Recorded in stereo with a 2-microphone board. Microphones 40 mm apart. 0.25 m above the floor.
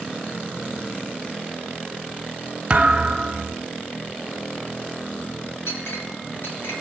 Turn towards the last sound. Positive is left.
turn(degrees=75)  # may be behind; listen again after turning